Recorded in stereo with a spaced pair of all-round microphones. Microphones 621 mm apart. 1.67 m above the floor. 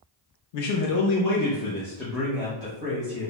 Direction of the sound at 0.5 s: 85° left.